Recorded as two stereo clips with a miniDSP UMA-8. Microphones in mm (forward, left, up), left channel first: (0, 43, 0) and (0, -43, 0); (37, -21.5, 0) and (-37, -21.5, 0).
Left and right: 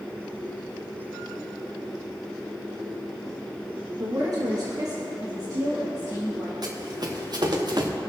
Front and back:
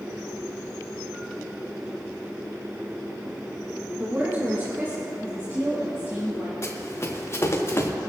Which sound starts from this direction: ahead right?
Running footsteps, at 6.6 s.